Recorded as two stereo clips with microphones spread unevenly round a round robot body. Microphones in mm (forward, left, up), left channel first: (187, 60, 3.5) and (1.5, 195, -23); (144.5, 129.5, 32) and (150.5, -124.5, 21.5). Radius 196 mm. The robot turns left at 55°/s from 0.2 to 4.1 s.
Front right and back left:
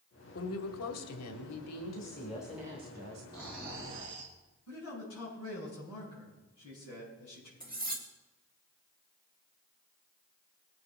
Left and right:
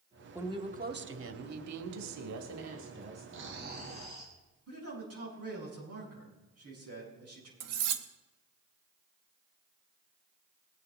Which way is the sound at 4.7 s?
65° right.